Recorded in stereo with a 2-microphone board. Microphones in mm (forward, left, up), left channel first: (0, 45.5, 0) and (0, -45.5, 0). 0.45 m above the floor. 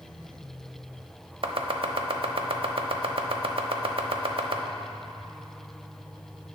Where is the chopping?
70° right (ahead or behind), 0.6 m.